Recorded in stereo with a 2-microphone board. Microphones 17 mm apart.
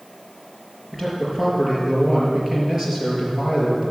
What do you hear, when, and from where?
0.9 s a man speaking: 30° right (ahead or behind), 5 m